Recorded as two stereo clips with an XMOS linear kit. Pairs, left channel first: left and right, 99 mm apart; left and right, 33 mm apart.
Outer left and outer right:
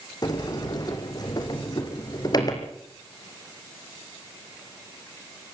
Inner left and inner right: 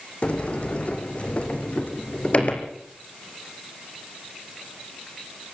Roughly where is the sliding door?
Left.